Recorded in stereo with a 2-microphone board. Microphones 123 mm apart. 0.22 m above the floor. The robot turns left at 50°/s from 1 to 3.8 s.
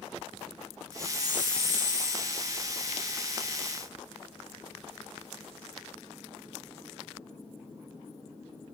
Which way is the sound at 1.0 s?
35° left.